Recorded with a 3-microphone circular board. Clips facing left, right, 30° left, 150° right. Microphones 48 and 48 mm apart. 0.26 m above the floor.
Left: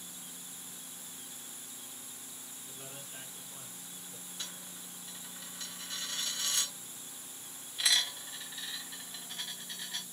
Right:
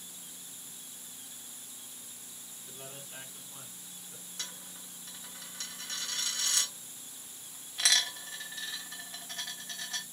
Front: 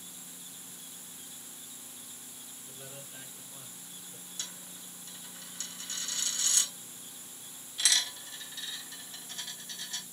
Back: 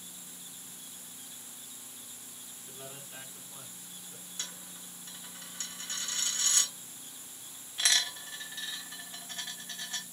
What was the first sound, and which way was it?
A man speaking, 115° right.